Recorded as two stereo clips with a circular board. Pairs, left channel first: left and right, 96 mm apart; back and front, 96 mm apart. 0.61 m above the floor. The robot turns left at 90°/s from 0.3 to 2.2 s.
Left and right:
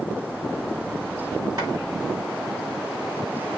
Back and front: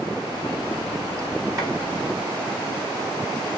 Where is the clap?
45° right, 3.5 m; by 1.7 s 55° right, 3.5 m.